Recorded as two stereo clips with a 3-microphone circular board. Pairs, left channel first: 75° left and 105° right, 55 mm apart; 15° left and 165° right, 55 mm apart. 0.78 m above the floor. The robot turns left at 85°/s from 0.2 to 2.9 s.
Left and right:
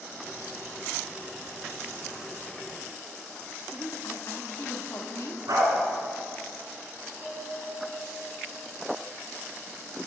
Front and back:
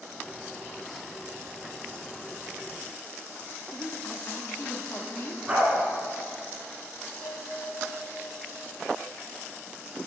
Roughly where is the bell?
Left.